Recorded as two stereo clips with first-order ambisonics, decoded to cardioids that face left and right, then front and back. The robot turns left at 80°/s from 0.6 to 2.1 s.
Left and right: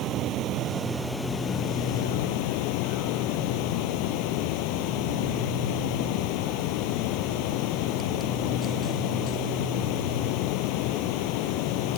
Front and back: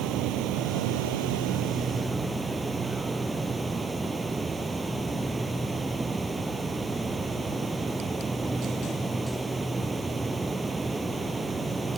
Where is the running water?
140° right; by 12.0 s 100° left.